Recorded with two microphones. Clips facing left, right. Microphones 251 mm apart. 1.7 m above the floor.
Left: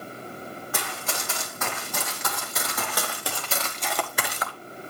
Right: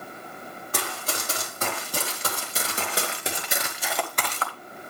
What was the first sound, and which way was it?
Running footsteps, 40° right (ahead or behind).